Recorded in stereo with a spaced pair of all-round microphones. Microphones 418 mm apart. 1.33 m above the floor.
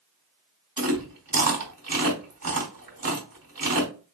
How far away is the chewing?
About 2.5 m.